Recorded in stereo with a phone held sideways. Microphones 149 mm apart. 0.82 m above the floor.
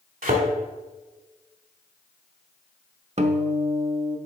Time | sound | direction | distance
0.2 | a thud | 70° right (ahead or behind) | 1.5 m
3.2 | a guitar | 50° right (ahead or behind) | 0.6 m